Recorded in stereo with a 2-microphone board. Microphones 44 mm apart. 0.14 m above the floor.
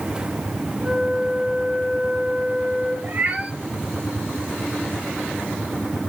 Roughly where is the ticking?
No ticking in this recording.